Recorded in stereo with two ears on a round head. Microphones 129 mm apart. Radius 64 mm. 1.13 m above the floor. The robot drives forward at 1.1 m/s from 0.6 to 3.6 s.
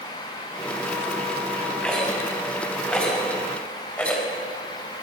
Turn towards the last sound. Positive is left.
turn(degrees=10)  # may be behind; listen again after turning